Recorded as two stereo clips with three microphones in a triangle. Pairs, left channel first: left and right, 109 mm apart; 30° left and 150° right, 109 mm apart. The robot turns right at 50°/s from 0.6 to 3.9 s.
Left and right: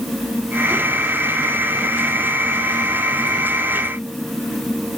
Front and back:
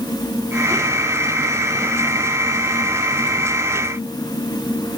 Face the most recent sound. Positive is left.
No sound to turn to.